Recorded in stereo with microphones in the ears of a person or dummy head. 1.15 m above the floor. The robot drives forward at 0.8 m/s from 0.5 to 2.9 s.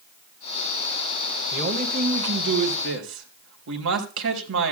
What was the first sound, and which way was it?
A man speaking, 60° right (ahead or behind).